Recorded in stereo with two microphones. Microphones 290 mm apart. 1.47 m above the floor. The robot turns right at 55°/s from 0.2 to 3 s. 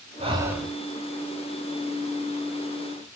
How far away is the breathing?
About 0.6 m.